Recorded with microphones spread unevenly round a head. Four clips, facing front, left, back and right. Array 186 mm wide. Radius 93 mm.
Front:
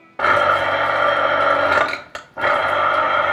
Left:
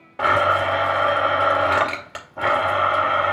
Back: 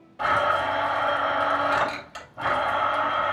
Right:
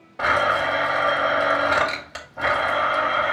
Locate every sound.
0.2 s a blender: 20° left, 2.5 m